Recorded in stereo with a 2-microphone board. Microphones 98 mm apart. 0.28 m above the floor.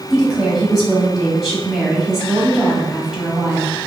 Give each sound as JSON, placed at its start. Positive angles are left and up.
{"t": 0.1, "sound": "a woman speaking", "side_deg": 0, "distance_m": 1.4}